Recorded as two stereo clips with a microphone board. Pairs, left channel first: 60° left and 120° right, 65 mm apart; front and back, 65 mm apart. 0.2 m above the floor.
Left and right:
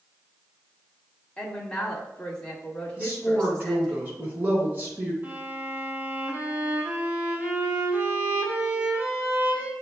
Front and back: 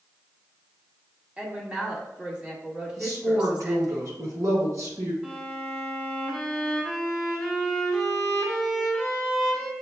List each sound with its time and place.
1.4 s a woman speaking: 115° left, 1.3 m
3.0 s a woman speaking: 175° right, 2.0 m
5.2 s a violin: 120° right, 1.5 m